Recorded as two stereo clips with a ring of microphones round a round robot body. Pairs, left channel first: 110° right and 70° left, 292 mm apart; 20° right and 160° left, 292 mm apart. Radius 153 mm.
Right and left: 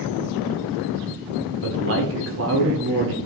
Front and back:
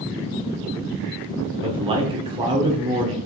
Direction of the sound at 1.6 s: 90° left.